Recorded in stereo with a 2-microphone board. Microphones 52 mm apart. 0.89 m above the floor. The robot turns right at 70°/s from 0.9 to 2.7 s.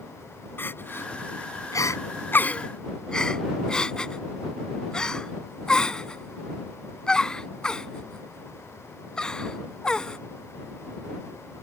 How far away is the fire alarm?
I don't hear a fire alarm.